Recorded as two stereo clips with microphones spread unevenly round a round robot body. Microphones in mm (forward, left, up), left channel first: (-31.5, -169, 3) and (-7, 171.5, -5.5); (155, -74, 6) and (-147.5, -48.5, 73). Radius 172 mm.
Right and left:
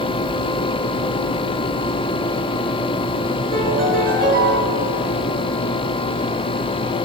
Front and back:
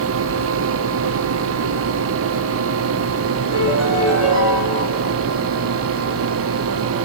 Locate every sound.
3.5 s a piano: 80° left, 4 m